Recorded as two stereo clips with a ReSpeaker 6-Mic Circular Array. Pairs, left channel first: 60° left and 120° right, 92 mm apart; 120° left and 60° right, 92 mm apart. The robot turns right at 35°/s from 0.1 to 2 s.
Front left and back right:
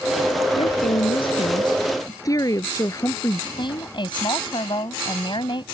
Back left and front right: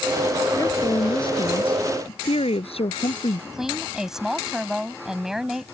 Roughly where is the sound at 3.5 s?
Ahead left.